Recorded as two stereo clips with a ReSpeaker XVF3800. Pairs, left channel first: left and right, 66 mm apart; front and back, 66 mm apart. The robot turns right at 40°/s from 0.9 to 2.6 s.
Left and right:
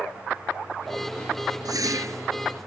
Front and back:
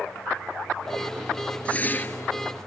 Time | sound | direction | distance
1.6 | a whoosh | 70° right | ?